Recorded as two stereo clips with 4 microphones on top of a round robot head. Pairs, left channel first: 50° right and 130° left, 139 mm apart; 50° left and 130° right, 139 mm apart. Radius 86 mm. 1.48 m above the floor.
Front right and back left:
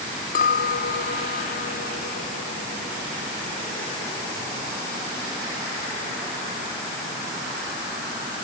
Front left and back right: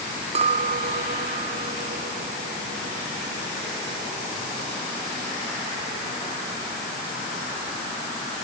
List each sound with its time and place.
0.3 s a clink: 85° right